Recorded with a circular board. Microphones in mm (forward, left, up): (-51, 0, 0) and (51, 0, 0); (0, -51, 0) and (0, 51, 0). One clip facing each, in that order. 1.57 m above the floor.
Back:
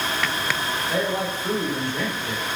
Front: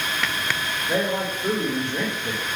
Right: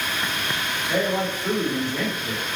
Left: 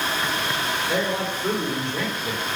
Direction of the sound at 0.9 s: 20° left.